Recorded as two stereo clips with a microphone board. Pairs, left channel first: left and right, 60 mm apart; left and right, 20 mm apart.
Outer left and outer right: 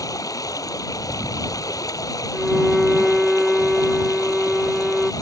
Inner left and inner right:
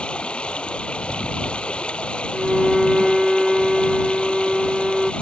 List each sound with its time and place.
0.0 s running water: 75° left (ahead or behind)
2.3 s a violin: centre (ahead or behind)